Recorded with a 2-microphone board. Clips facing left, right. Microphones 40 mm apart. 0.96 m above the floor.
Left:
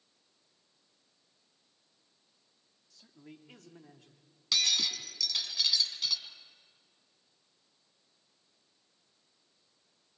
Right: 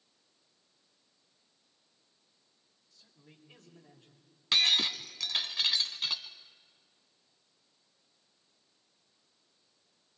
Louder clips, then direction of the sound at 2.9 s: Left 8 dB; 75° left (ahead or behind).